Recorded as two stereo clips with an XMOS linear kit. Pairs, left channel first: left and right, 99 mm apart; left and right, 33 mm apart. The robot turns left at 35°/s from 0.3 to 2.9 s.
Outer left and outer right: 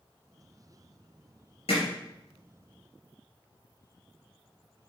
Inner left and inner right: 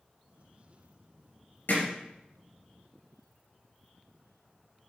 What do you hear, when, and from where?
1.7 s hammering: 75° left (ahead or behind), 3 m